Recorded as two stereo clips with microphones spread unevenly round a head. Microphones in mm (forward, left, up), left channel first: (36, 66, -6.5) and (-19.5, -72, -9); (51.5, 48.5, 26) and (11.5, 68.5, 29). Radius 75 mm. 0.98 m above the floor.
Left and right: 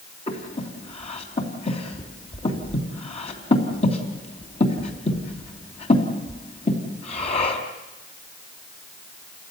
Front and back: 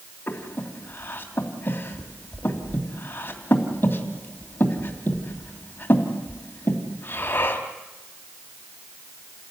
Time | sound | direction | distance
0.3 | breathing | 20° left | 3 m